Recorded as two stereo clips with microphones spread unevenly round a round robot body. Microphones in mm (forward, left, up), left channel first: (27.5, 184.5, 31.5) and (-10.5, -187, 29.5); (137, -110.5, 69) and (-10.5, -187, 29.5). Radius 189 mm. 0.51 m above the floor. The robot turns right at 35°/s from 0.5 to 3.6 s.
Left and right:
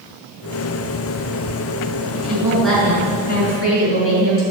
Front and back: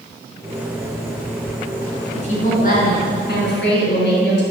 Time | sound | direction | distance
2.1 | a woman speaking | 25° right | 5.5 m